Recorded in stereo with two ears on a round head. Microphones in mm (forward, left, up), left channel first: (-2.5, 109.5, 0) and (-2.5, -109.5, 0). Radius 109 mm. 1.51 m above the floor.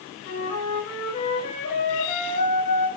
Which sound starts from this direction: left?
A flute, at 0.2 s.